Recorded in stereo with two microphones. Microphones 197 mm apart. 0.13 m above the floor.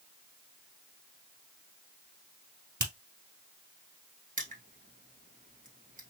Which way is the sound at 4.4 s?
45° right (ahead or behind).